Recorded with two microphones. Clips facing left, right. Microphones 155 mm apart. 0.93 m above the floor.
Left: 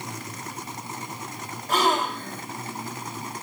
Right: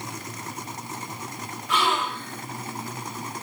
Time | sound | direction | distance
1.7 | a gasp | 40° left (ahead or behind) | 2 m